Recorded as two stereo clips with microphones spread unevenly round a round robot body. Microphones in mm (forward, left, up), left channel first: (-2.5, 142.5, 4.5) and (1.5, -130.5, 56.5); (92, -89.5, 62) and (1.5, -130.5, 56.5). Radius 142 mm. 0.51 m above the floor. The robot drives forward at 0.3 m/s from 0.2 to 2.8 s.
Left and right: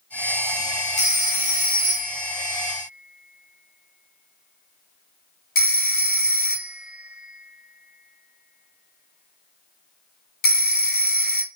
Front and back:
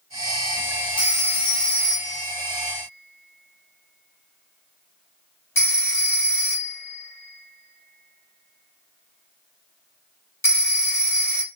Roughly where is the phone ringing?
Ahead left.